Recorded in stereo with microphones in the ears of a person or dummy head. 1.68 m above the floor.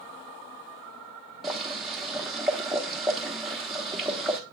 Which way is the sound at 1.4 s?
5° left (ahead or behind).